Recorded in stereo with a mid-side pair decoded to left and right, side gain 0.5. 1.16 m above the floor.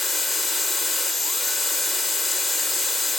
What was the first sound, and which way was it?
A machine running, 10° left.